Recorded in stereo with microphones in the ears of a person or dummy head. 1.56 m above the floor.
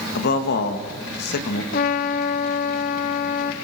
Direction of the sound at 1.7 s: 45° left (ahead or behind).